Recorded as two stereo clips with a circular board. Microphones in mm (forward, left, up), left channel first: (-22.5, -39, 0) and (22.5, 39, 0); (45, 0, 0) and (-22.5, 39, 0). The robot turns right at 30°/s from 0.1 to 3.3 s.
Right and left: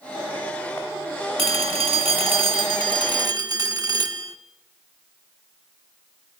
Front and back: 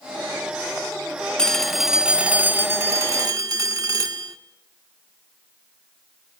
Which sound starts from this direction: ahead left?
A phone ringing, at 1.4 s.